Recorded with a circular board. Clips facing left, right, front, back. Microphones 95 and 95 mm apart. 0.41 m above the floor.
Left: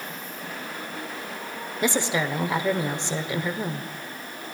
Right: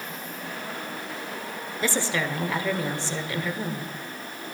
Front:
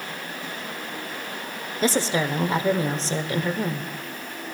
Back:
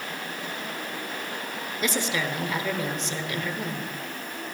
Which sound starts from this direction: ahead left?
A woman speaking, at 1.8 s.